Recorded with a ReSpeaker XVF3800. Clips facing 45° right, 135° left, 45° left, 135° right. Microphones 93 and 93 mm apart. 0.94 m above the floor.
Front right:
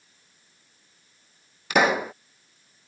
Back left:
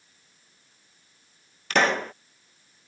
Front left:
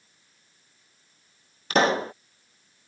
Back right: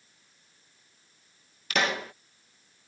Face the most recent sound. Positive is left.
turn(degrees=30)